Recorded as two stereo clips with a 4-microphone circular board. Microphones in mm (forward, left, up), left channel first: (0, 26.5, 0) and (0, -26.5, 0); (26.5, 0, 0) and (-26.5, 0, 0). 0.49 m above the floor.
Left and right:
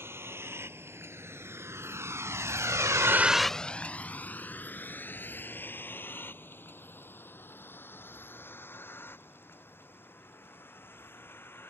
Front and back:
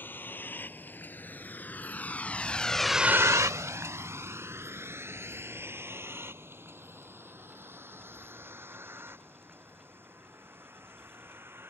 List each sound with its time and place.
0.0 s a vehicle: 50° right; by 11.7 s 135° left